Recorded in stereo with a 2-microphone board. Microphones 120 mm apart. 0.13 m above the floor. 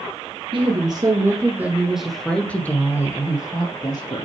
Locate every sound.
0.5 s a woman speaking: 45° right (ahead or behind), 1.8 m; by 4.2 s 40° left (ahead or behind), 3 m